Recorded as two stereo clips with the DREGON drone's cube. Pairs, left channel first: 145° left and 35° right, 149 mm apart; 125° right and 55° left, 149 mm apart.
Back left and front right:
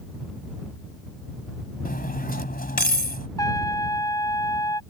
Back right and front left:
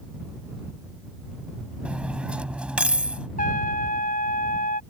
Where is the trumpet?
150° right.